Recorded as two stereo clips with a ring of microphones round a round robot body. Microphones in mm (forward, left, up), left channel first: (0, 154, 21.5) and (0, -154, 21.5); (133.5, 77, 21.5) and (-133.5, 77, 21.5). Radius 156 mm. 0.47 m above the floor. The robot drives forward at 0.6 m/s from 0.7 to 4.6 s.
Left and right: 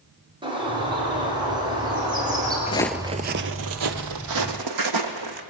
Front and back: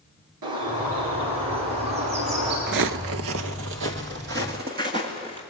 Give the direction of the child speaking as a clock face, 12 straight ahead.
I don't hear a child speaking.